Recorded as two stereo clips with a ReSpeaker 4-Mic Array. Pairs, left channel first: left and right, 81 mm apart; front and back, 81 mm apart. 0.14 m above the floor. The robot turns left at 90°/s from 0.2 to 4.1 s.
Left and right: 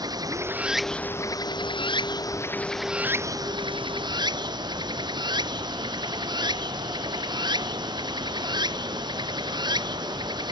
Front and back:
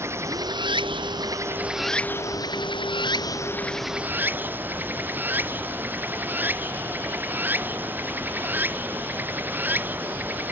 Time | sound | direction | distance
0.0 | running water | 125° right | ?